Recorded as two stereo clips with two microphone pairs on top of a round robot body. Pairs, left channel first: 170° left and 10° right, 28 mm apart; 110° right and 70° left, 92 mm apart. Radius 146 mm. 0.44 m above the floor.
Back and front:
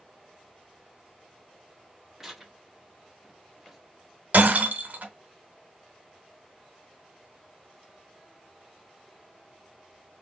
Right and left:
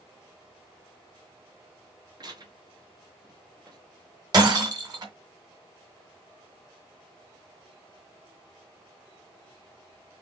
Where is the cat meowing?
I don't hear a cat meowing.